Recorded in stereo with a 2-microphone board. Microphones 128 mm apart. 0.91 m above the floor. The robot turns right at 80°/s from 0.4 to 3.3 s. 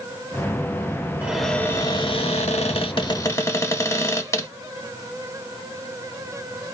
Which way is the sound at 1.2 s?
15° right.